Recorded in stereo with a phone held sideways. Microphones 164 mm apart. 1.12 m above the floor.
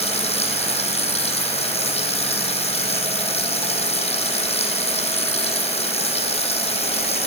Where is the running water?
40° left (ahead or behind), 6 m.